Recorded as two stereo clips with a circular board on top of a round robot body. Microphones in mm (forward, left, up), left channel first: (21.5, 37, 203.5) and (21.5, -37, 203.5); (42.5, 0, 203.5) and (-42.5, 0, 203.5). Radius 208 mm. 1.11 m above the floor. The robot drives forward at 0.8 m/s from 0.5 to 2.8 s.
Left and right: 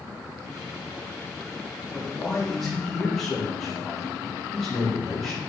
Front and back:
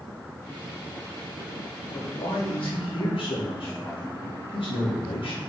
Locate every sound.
1.9 s a man speaking: 5° left, 3.5 m